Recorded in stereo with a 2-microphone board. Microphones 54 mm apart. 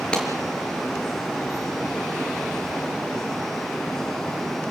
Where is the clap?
20° left (ahead or behind), 5.5 m.